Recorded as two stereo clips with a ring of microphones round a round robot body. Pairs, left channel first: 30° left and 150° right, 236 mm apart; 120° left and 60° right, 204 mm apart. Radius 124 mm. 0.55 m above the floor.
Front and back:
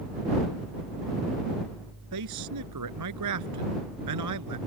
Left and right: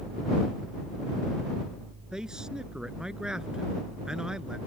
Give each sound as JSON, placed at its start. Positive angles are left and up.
{"t": 2.1, "sound": "a man speaking", "azimuth_deg": -145}